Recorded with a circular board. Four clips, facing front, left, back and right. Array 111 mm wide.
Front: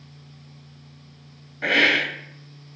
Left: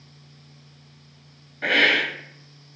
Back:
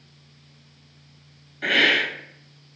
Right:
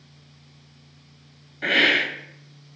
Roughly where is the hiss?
Ahead.